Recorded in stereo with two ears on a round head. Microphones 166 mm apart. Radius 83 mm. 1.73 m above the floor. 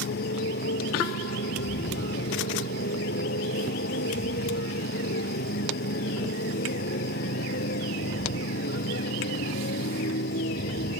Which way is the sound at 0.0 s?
55° left (ahead or behind).